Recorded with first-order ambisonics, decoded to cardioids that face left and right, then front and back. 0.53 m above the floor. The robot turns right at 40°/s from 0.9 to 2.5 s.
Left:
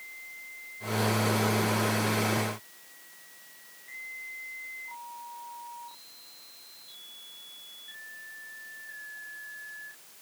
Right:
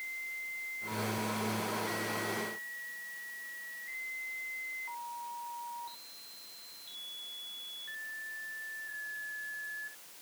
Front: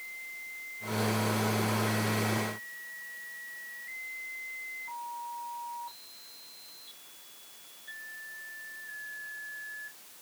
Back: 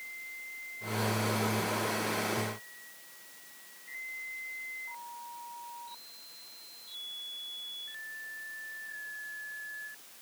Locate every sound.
Only background noise.